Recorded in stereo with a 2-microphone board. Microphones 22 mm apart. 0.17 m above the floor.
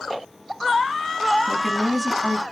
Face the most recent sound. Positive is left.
turn(degrees=20)  # may be behind; listen again after turning